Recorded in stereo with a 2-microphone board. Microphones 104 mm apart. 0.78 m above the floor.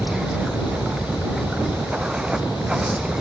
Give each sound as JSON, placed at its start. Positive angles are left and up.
{"t": 0.0, "sound": "running water", "side_deg": -5}